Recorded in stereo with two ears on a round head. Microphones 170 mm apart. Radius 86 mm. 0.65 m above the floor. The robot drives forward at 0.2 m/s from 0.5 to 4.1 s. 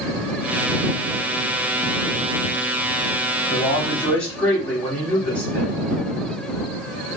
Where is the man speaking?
5° left (ahead or behind), 1.5 m.